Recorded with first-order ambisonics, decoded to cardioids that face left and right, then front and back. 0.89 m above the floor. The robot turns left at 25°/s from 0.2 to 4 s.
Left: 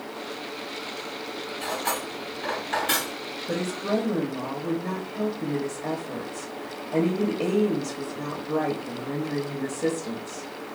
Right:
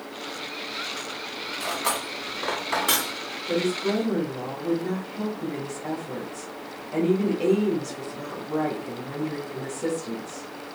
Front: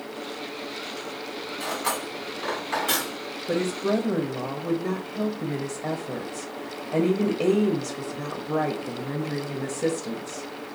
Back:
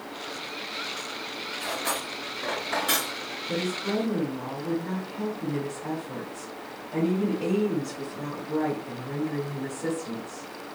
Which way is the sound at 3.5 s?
30° left.